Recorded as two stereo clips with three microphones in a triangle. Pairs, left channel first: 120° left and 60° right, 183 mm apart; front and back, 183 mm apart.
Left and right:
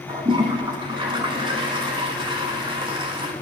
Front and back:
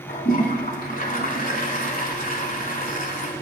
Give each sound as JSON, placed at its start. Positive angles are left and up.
{"t": 0.1, "sound": "a toilet flushing", "azimuth_deg": -5, "distance_m": 1.0}